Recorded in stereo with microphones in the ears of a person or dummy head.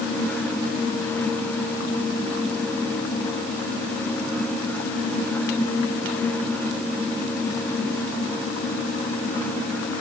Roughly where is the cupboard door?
I don't hear a cupboard door.